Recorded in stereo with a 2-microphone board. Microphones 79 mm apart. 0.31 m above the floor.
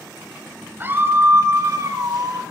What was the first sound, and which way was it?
A scream, 25° right (ahead or behind).